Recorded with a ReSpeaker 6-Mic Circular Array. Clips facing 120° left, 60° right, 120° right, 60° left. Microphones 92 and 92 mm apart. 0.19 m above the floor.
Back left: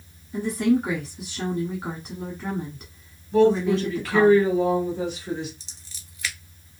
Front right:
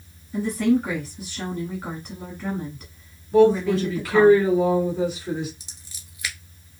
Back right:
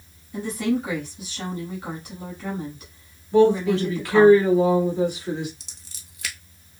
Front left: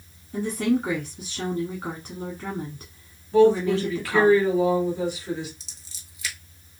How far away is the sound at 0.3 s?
About 1.3 m.